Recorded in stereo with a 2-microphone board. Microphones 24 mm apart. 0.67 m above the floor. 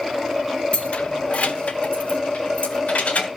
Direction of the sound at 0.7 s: 60° left (ahead or behind).